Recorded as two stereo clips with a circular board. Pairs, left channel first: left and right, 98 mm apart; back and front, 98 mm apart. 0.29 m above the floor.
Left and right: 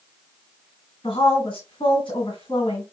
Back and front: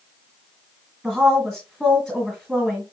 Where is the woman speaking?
90° left, 2 m.